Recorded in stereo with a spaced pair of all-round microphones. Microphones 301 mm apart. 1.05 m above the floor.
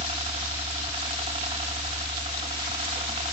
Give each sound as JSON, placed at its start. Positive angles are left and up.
{"t": 0.0, "sound": "a helicopter", "side_deg": -20}